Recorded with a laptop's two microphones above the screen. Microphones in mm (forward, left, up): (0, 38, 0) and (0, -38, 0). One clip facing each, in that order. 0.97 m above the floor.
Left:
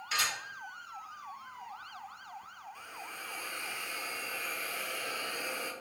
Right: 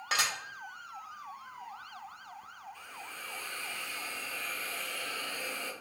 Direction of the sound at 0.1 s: 75° right (ahead or behind).